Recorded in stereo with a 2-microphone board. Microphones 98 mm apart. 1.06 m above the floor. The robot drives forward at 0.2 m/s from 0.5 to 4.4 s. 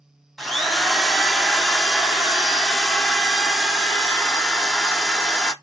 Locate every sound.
0.4 s a drill: centre (ahead or behind), 0.6 m